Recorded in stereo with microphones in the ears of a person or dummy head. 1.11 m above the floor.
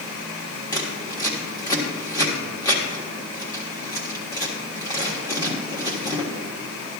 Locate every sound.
0.7 s scissors: 20° left (ahead or behind), 1.5 m